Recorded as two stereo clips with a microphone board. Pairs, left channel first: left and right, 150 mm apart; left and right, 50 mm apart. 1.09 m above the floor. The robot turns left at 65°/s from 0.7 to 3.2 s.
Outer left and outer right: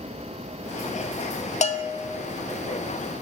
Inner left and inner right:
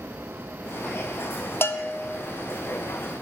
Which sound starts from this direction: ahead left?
A bell, at 1.6 s.